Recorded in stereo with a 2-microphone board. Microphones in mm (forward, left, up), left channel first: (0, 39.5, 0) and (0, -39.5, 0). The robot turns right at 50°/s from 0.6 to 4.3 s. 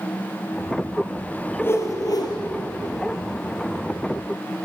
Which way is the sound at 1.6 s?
30° left.